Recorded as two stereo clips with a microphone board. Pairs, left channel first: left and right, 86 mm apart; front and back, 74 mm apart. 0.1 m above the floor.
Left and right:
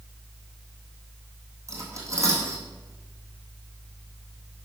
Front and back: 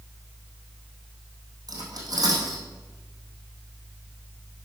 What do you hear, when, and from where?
1.7 s cutlery clinking: 145° right, 3 m